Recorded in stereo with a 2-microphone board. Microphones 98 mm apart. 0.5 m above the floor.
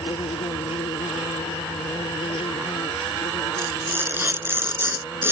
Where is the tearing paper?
25° right (ahead or behind).